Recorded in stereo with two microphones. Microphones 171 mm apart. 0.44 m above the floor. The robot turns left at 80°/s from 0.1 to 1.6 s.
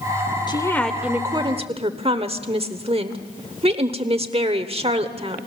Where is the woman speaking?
40° left, 1.0 m; by 5.5 s 50° right, 1.0 m.